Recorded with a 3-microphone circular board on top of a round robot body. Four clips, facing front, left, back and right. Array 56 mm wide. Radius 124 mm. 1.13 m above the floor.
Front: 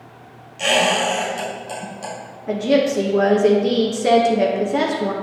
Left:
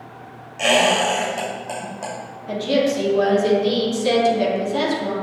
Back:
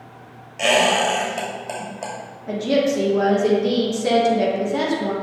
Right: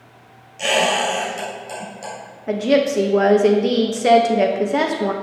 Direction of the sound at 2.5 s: 75° right.